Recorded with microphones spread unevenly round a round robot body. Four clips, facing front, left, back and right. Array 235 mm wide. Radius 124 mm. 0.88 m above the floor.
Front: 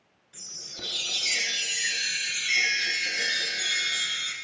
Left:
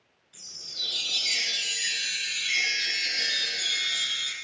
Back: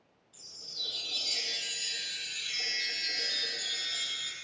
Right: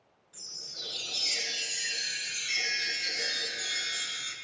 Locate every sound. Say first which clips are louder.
0.3 s a chime: left 1 dB, front 9 dB; 15° left, 7.5 m